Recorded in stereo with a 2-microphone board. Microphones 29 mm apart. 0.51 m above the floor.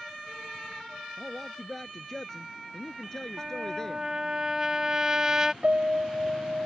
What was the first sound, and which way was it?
A man speaking, 15° left (ahead or behind).